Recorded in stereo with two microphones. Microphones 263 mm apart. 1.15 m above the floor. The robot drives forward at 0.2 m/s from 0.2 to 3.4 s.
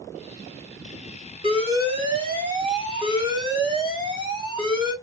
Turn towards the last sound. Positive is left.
turn(degrees=-20)  # may be behind; listen again after turning